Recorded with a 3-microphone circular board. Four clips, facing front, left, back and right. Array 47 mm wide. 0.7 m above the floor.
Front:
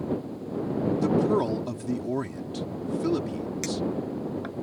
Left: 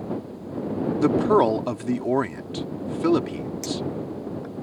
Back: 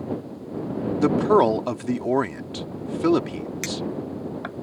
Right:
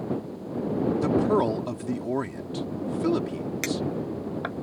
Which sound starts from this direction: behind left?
A man speaking, at 1.0 s.